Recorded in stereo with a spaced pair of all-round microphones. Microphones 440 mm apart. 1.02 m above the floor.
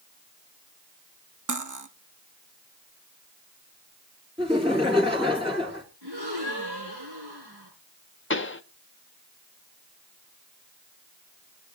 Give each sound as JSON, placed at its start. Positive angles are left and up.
{"t": 1.5, "sound": "cutlery clinking", "side_deg": -45, "distance_m": 0.9}
{"t": 4.4, "sound": "laughter", "side_deg": -15, "distance_m": 2.5}
{"t": 6.0, "sound": "a gasp", "side_deg": -70, "distance_m": 7.0}
{"t": 8.3, "sound": "a pop", "side_deg": 30, "distance_m": 0.6}